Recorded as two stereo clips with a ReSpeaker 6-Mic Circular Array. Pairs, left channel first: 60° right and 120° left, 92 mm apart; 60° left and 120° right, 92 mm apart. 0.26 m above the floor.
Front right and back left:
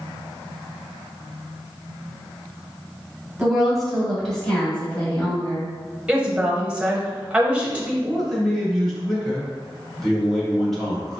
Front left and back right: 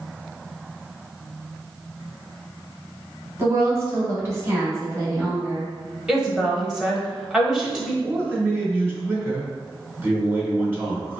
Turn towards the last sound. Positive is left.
turn(degrees=-140)